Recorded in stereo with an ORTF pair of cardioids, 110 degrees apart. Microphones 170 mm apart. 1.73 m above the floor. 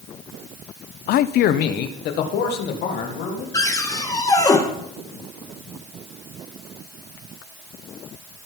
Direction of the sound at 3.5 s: 20° left.